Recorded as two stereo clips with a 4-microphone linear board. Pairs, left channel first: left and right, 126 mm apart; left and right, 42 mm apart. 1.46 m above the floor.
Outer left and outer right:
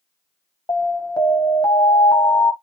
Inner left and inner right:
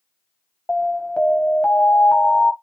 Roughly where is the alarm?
Left.